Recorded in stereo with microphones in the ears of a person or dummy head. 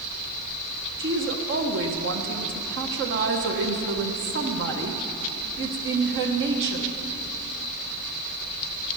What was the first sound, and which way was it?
A woman speaking, 60° right (ahead or behind).